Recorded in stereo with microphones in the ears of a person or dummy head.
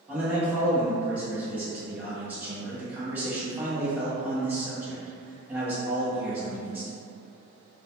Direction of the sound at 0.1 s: 10° right (ahead or behind).